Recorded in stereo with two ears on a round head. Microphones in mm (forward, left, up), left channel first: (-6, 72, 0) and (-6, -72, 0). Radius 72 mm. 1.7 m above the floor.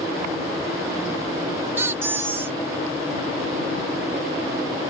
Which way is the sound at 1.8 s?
15° right (ahead or behind).